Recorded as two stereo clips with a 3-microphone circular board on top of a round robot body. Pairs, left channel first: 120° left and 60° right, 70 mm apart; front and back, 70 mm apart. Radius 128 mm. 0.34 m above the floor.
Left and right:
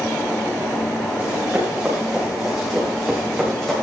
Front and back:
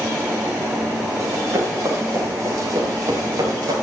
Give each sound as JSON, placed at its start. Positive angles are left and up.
{"t": 1.2, "sound": "running footsteps", "azimuth_deg": -135, "distance_m": 8.5}